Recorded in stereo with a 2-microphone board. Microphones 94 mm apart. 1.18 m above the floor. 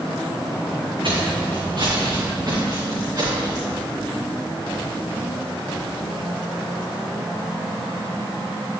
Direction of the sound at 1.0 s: 60° right (ahead or behind).